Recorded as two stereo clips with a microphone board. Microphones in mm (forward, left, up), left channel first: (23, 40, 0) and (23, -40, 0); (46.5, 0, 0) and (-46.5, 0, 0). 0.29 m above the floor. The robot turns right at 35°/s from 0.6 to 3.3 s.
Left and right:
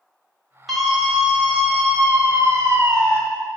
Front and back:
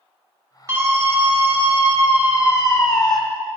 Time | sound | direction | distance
0.7 | a scream | 175° right | 1.4 m